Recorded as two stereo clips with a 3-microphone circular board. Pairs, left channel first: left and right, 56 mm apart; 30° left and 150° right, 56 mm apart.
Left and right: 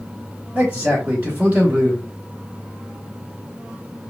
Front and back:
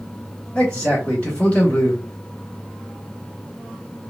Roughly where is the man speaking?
Ahead right.